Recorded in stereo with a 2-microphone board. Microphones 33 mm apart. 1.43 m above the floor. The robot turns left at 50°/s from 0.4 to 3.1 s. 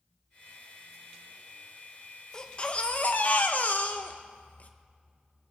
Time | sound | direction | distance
2.3 | a baby crying | 160° left | 0.9 m